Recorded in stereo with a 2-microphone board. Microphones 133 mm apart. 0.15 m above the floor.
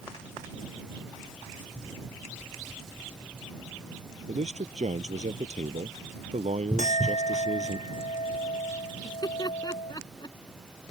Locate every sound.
4.3 s a man speaking: 60° right (ahead or behind)
6.8 s a clink: 65° left (ahead or behind)
9.0 s laughter: 30° left (ahead or behind)